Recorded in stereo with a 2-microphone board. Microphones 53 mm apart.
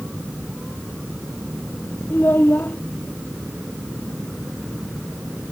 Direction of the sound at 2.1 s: 45° left (ahead or behind).